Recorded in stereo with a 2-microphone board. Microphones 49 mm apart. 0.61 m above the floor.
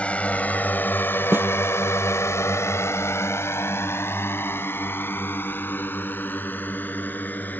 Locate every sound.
0.0 s a drone: 25° left (ahead or behind); by 7.6 s 35° left (ahead or behind)
1.3 s a snare drum: 45° right (ahead or behind)